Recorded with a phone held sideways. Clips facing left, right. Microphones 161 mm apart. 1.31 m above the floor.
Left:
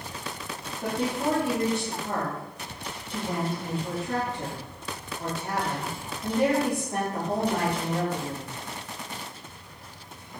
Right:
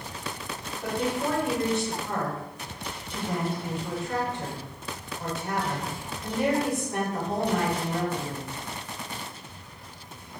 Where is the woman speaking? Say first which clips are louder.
Left 1 dB; 35° left (ahead or behind), 1.5 m.